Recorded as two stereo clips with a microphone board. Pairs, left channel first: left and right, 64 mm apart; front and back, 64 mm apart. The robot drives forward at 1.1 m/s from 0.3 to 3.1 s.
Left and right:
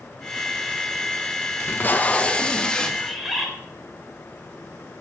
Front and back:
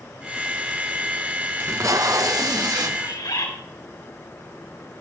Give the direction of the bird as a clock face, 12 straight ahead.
12 o'clock.